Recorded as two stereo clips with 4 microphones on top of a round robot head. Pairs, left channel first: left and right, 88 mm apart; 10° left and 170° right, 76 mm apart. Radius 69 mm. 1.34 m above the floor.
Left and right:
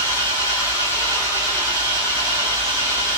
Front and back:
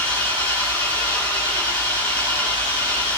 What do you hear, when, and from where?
0.0 s an engine running: 155° right, 8 m